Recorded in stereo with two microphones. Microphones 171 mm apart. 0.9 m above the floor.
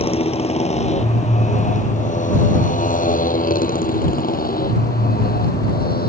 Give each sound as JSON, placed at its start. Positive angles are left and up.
{"t": 0.0, "sound": "a motorcycle", "side_deg": 35}